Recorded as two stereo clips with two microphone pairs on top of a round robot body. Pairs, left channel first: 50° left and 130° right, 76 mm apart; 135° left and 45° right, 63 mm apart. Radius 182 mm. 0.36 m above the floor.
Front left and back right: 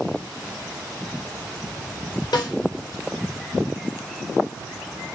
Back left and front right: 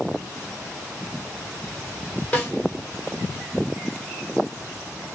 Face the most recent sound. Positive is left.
turn(degrees=70)